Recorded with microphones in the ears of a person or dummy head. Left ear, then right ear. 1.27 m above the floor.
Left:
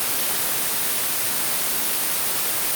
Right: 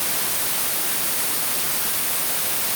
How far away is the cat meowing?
I don't hear a cat meowing.